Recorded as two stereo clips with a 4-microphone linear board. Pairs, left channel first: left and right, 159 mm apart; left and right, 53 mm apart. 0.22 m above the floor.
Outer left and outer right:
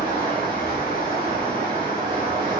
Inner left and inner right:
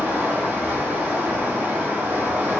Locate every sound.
0.0 s running water: 30° right (ahead or behind), 1.3 m